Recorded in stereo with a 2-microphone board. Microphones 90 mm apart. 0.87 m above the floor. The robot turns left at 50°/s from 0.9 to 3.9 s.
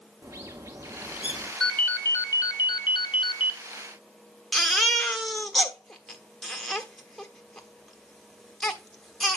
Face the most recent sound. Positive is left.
turn(degrees=5)  # may be behind; listen again after turning